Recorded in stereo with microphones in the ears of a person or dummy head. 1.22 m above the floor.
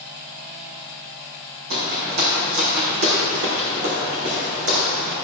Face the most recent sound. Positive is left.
turn(degrees=-50)  # may be behind; listen again after turning